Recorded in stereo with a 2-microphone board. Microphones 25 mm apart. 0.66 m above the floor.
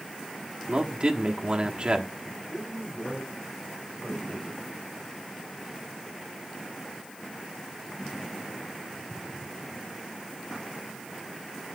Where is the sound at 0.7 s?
45° right (ahead or behind), 1.2 m.